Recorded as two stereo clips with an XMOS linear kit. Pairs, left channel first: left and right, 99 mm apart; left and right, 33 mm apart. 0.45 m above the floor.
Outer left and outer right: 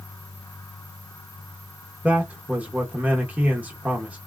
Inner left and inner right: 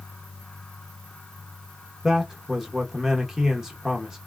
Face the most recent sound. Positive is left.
turn(degrees=-15)  # may be behind; listen again after turning